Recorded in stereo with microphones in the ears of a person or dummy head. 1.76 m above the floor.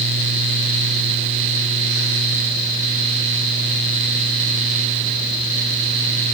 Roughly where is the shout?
No shout in this recording.